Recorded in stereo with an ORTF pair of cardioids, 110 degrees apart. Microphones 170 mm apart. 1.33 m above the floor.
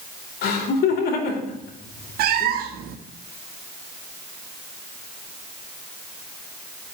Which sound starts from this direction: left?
Laughter, at 0.4 s.